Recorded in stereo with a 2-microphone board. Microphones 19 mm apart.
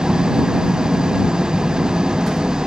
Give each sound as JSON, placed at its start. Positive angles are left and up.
{"t": 0.0, "sound": "an engine running", "side_deg": -45}